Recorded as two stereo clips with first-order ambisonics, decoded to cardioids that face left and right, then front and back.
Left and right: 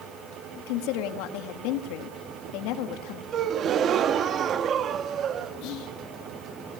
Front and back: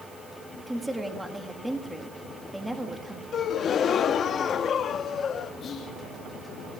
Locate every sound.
0.6 s a woman speaking: 95° left, 2 m
3.3 s a gasp: 50° right, 0.7 m
5.6 s whispering: 65° left, 3 m